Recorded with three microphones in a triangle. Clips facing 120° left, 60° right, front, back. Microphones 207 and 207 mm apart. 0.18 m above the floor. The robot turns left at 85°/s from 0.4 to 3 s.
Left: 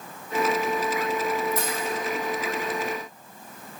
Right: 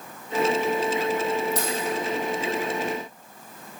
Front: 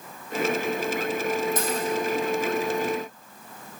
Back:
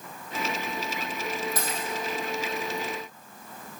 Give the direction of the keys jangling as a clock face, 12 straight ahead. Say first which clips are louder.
Right 1 dB, front 7 dB; 2 o'clock.